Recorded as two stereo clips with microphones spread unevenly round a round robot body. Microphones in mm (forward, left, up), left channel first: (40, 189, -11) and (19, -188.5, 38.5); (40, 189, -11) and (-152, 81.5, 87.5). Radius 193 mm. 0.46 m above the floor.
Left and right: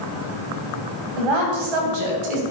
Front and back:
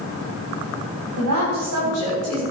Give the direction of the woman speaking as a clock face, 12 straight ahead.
4 o'clock.